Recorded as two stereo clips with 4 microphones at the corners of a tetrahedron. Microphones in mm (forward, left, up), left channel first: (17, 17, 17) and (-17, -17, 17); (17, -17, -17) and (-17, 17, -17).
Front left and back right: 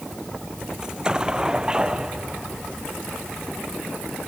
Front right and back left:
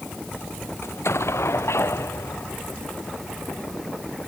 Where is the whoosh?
No whoosh in this recording.